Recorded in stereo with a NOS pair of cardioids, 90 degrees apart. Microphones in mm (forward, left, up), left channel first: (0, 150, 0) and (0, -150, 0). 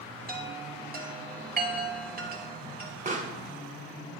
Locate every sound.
0.3 s a chime: 30° right, 2.5 m
3.0 s a pop: 25° right, 2 m